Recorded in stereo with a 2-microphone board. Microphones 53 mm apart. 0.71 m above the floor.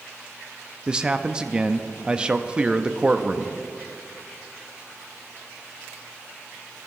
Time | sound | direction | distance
0.9 | a man speaking | 15° right (ahead or behind) | 0.5 m